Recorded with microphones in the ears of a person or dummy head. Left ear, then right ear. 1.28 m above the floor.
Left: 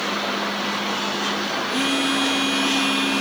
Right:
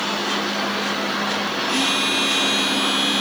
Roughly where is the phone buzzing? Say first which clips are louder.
Right 3 dB; right.